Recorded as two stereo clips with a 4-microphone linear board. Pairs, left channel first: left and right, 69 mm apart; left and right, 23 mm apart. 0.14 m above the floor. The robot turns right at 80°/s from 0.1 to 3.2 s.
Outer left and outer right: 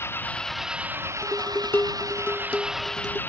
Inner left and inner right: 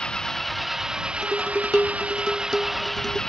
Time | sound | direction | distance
0.0 | an engine running | 140° left | ?
1.2 | dishes clattering | 45° left | ?